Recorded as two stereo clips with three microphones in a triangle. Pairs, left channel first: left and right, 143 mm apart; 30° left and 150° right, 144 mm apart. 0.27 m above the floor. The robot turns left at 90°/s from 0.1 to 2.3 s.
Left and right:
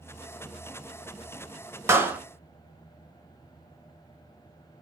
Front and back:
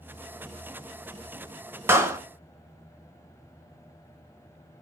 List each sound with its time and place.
1.9 s a clap: 115° right, 0.7 m; by 2.2 s 145° right, 0.7 m